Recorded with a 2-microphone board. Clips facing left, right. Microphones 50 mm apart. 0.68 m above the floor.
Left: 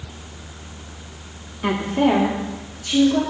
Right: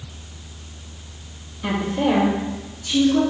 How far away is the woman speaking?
About 0.8 m.